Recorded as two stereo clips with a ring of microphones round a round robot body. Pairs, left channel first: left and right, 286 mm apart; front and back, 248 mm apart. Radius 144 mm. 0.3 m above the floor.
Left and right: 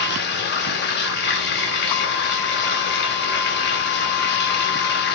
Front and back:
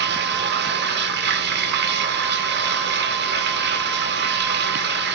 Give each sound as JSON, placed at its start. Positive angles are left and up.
{"t": 0.0, "sound": "running water", "azimuth_deg": 140, "distance_m": 0.9}